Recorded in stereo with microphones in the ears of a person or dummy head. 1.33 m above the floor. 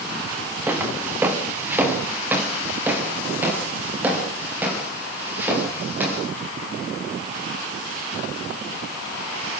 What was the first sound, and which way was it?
Footsteps, 10° right (ahead or behind).